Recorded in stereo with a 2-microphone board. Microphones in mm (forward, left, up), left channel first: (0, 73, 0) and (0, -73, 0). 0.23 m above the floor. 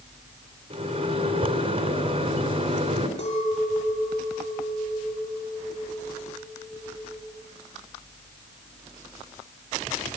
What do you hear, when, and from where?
0.7 s a microwave: 40° right (ahead or behind), 2.5 m
3.2 s a clink: 50° left (ahead or behind), 5.5 m